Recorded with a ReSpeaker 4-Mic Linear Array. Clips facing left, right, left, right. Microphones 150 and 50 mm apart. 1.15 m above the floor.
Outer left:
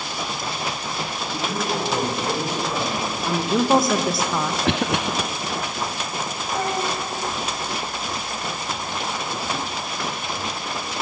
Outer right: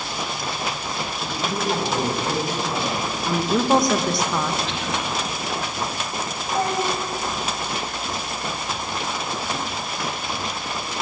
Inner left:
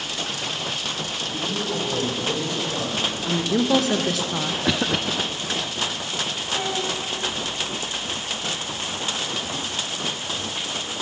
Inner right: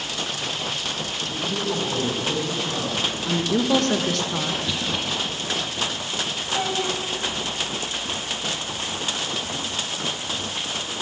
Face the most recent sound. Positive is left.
turn(degrees=-20)  # may be behind; listen again after turning